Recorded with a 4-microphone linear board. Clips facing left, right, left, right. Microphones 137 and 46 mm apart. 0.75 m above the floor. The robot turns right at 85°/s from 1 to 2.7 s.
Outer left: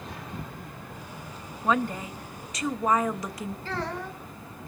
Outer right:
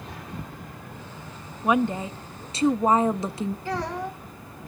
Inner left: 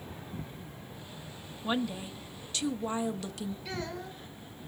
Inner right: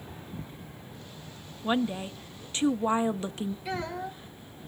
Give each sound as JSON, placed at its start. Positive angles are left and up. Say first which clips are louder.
{"t": 1.6, "sound": "a woman speaking", "louder": "outer right 4 dB, inner right 4 dB", "azimuth_deg": -155, "distance_m": 0.7}
{"t": 3.6, "sound": "a child speaking", "louder": "outer right 3 dB, inner right 4 dB", "side_deg": -15, "distance_m": 2.5}